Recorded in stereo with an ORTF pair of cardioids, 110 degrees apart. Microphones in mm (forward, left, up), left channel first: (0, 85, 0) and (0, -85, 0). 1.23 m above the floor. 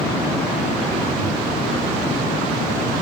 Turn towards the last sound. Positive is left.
turn(degrees=-65)